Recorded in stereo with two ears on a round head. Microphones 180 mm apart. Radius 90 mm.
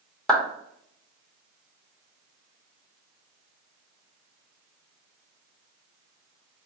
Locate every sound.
0.3 s a clap: centre (ahead or behind), 1.0 m